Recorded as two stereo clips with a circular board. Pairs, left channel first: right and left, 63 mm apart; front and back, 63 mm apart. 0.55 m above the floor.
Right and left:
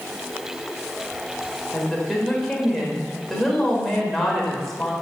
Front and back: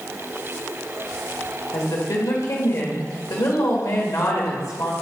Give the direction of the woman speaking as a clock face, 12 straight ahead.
12 o'clock.